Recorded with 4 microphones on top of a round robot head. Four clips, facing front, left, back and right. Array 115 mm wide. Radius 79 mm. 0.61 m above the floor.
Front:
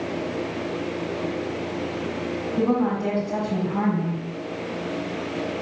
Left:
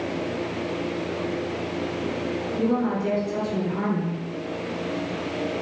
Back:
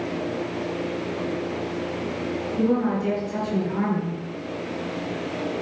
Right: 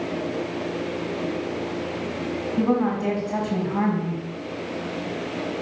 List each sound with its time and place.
2.6 s a woman speaking: 50° right, 3.5 m